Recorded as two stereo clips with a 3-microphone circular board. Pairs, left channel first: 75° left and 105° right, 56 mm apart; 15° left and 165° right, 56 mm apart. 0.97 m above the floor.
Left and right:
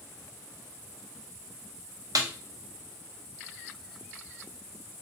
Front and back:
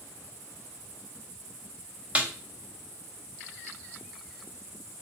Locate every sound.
2.1 s a snare drum: 100° right, 0.6 m